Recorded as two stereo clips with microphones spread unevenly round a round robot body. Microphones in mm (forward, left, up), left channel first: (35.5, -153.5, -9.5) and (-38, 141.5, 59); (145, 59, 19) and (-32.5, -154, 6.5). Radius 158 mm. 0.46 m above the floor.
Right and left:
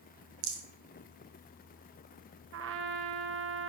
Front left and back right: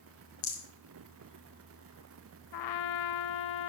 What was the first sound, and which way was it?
A rattle, 75° left.